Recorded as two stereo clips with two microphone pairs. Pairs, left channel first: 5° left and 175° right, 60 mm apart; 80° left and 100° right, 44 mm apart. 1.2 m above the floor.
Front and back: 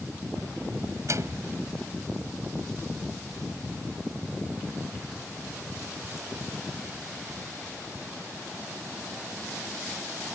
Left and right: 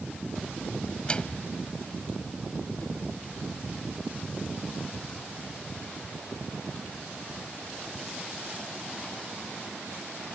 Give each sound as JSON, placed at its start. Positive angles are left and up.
{"t": 1.1, "sound": "a microwave", "azimuth_deg": 150}